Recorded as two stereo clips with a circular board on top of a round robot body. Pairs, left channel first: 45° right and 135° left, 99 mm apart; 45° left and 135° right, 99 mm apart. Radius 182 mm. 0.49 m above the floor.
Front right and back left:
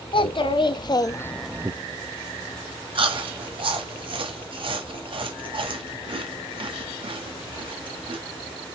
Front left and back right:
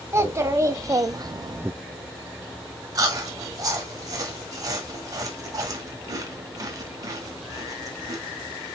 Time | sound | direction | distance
0.1 | a child speaking | 75° right | 1.7 m
3.0 | chewing | 170° left | 1.4 m